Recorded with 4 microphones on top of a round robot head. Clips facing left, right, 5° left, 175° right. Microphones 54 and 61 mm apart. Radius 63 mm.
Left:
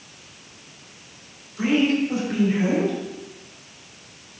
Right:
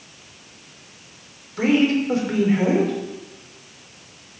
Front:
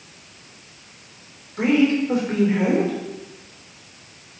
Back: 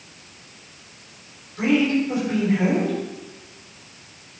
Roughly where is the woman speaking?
Ahead right.